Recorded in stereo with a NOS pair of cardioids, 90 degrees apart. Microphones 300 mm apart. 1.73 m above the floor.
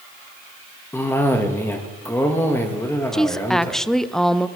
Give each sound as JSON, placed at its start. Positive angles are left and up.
{"t": 0.9, "sound": "a cough", "azimuth_deg": 10, "distance_m": 1.9}
{"t": 3.1, "sound": "a woman speaking", "azimuth_deg": 0, "distance_m": 0.6}